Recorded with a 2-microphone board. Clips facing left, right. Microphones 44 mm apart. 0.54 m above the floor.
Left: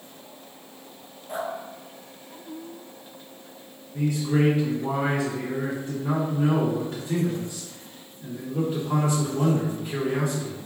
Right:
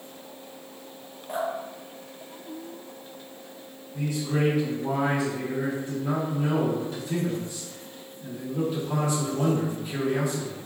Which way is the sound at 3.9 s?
35° left (ahead or behind).